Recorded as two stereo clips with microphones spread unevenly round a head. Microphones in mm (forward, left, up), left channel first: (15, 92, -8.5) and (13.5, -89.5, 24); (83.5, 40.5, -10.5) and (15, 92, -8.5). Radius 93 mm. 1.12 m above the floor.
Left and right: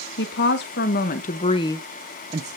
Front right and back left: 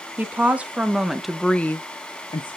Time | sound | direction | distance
0.2 | a woman speaking | 75° left | 2 m